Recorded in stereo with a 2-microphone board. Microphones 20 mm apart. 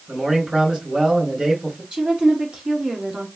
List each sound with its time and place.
0.1 s a man speaking: 55° right (ahead or behind), 3 m
1.9 s a woman speaking: 55° right (ahead or behind), 1.7 m